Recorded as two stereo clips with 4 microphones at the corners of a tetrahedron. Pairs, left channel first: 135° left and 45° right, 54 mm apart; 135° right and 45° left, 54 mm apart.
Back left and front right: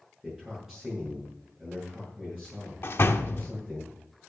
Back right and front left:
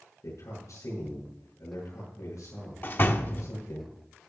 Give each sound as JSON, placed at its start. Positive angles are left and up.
{"t": 0.2, "sound": "a man speaking", "azimuth_deg": -125, "distance_m": 8.0}
{"t": 2.8, "sound": "a door slam", "azimuth_deg": 175, "distance_m": 1.0}